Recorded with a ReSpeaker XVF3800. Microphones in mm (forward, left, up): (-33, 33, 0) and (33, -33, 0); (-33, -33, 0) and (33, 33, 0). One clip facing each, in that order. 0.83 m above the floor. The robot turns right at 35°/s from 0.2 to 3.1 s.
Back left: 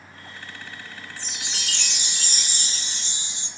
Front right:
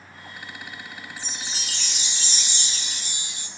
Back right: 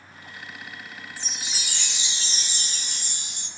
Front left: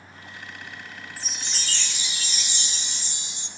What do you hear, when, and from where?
1.2 s a chime: 130° left, 1.8 m; by 3.5 s 165° right, 1.8 m